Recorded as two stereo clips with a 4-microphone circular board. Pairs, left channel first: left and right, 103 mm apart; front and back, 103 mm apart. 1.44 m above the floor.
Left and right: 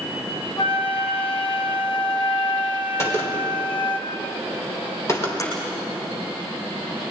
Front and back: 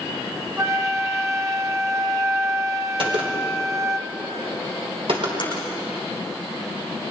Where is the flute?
120° left, 0.9 m.